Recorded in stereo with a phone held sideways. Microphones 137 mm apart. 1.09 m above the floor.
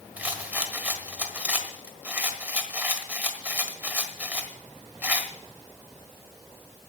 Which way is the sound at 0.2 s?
15° right (ahead or behind).